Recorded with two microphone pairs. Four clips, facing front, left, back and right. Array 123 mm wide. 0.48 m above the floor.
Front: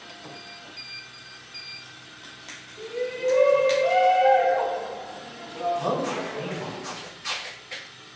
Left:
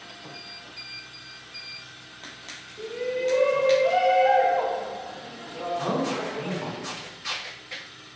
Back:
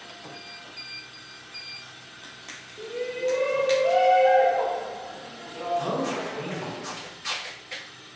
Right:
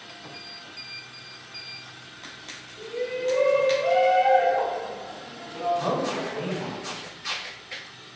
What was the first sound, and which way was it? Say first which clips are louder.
A shout: left 1 dB, front 1 dB; 5° right.